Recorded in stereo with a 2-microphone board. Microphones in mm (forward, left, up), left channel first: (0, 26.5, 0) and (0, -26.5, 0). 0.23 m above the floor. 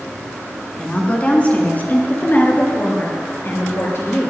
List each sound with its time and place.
0.8 s a woman speaking: 20° left (ahead or behind), 1.7 m; by 4.3 s 50° left (ahead or behind), 3.5 m